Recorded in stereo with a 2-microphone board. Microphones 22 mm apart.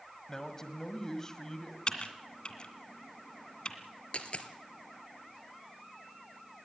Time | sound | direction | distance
0.3 | a man speaking | 25° left (ahead or behind) | 1.5 m
1.9 | typing on a keyboard | 40° left (ahead or behind) | 2.0 m
4.1 | a dropped coin | 65° left (ahead or behind) | 1.9 m